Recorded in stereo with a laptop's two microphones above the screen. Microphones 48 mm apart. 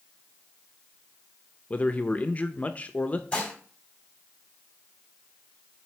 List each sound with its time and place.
1.7 s a man speaking: 35° left (ahead or behind), 0.6 m
3.3 s dishes clattering: 20° left (ahead or behind), 1.4 m